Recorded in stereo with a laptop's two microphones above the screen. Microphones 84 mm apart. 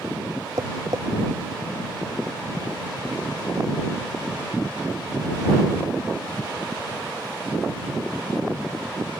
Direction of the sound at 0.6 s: 50° right (ahead or behind).